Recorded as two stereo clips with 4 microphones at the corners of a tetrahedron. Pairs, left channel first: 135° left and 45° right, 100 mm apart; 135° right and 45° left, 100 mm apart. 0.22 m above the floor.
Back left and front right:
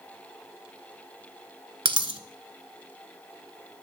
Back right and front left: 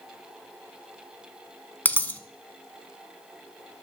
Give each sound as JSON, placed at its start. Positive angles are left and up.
{"t": 1.9, "sound": "a dropped coin", "azimuth_deg": -65, "distance_m": 0.5}